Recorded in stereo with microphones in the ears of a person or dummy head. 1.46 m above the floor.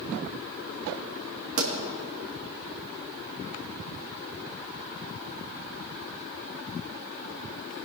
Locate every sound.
1.6 s a pop: 65° right (ahead or behind), 1.8 m